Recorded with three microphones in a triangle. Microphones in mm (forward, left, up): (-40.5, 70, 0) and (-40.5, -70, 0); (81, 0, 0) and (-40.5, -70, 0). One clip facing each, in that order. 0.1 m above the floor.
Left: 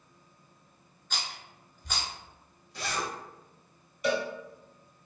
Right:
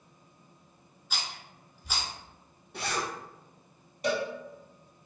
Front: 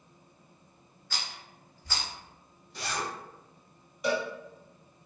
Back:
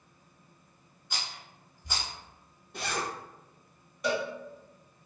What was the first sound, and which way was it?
A rattle, 155° right.